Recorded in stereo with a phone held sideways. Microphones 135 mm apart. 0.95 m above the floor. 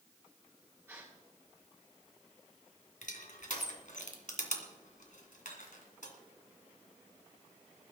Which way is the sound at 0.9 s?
20° right (ahead or behind).